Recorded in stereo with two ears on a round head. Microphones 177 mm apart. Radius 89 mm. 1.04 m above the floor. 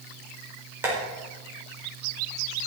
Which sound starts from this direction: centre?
Tapping, at 0.8 s.